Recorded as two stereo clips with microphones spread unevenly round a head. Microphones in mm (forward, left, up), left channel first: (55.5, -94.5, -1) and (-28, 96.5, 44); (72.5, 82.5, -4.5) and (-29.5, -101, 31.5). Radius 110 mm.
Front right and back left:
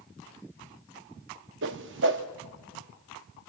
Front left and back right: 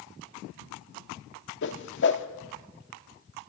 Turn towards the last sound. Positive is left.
turn(degrees=105)